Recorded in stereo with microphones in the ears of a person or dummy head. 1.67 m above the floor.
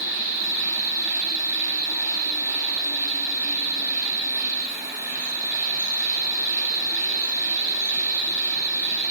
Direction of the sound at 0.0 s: 15° right (ahead or behind).